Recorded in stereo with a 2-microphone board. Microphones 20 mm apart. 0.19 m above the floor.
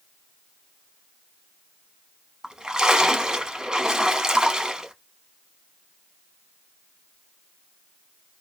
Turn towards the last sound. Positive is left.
turn(degrees=-40)  # may be behind; listen again after turning